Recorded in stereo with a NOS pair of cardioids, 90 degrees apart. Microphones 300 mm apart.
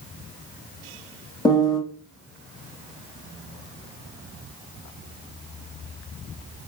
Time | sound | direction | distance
1.4 | a piano | 15° left | 1.1 m